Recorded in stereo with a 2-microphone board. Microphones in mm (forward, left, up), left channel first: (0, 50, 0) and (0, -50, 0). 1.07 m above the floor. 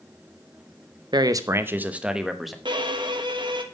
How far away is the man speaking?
About 0.7 m.